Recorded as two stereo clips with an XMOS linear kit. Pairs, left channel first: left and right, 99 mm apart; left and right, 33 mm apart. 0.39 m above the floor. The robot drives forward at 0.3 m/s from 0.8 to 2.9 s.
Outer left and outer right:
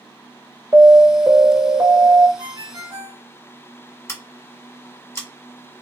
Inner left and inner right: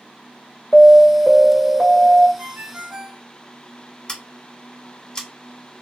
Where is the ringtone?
55° right (ahead or behind), 1.2 m; by 3.2 s 50° right (ahead or behind), 1.3 m.